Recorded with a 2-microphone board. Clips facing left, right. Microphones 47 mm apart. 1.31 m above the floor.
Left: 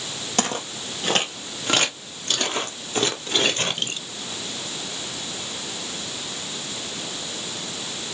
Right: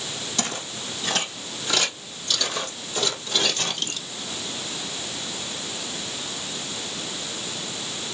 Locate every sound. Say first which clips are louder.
0.4 s footsteps: left 6 dB; 50° left (ahead or behind), 2.5 m; by 4.0 s 35° left (ahead or behind), 1.7 m